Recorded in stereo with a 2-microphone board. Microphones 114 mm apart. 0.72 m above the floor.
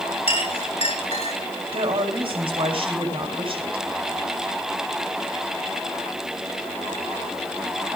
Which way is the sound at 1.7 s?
55° right (ahead or behind).